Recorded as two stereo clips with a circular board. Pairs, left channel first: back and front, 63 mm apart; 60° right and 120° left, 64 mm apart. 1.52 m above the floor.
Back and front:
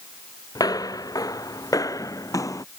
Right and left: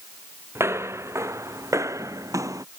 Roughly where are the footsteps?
Behind.